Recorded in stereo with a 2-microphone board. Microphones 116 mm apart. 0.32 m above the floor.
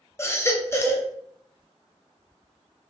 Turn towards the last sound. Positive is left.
turn(degrees=25)  # may be behind; listen again after turning